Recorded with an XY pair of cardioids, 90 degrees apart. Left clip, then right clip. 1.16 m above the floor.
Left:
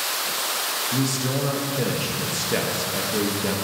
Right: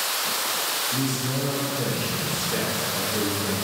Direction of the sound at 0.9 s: 55° left.